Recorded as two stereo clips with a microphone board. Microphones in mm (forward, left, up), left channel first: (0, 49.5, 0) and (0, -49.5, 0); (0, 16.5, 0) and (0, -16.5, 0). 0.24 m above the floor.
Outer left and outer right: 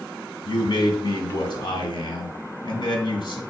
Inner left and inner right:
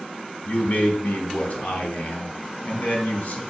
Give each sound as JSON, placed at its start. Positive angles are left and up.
{"t": 0.5, "sound": "a man speaking", "side_deg": 50, "distance_m": 1.9}